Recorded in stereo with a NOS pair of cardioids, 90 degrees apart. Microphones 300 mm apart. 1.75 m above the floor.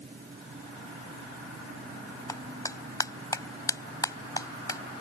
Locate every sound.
0.0 s a fan: 25° right
2.3 s a clap: 10° left